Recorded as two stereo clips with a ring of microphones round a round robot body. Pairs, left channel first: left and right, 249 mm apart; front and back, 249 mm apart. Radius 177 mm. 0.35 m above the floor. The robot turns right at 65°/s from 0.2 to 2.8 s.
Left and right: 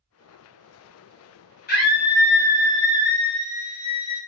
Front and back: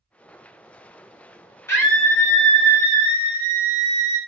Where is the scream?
75° left, 1.5 m; by 4.2 s 145° left, 1.5 m.